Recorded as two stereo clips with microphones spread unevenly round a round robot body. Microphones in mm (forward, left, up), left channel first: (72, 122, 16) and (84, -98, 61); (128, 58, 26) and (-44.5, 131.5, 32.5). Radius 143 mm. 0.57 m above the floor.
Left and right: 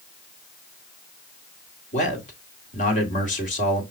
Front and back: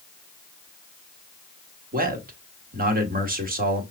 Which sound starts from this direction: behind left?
A man speaking, at 1.9 s.